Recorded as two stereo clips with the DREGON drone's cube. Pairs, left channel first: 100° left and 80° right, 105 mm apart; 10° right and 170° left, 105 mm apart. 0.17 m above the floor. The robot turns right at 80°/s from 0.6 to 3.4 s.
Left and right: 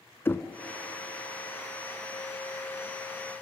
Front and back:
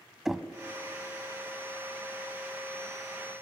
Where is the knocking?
90° left, 0.8 m.